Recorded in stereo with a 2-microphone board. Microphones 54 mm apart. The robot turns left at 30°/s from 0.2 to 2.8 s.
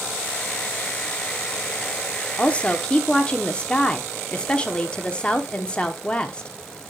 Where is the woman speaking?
25° left (ahead or behind), 0.9 m; by 6.5 s 20° left (ahead or behind), 0.9 m.